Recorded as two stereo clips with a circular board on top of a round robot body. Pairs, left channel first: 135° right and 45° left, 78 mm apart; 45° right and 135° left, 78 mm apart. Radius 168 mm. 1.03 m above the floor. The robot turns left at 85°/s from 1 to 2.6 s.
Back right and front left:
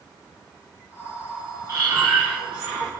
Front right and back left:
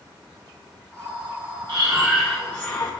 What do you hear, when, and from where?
1.7 s breathing: 100° left, 0.8 m; by 3.0 s 25° left, 0.8 m